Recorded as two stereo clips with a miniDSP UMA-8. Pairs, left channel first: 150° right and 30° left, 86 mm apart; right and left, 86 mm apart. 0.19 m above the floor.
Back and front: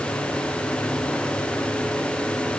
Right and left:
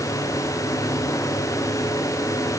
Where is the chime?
I don't hear a chime.